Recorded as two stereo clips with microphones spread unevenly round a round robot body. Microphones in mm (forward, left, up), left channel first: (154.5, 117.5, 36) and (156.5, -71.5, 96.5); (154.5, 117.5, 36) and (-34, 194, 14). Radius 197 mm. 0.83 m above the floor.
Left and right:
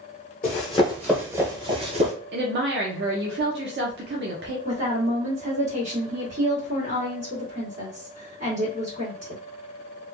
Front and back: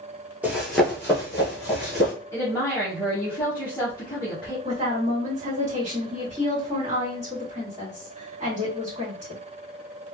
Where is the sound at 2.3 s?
105° right, 0.5 m.